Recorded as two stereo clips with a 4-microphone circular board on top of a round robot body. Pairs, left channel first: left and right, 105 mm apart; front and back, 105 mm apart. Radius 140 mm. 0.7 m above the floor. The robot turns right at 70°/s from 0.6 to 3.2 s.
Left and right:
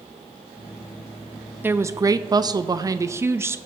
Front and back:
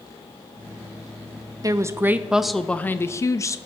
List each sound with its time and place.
1.6 s a woman speaking: 150° right, 0.6 m; by 3.6 s 40° right, 0.6 m